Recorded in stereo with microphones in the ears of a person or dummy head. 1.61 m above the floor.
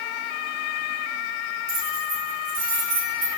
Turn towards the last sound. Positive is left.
turn(degrees=-65)  # may be behind; listen again after turning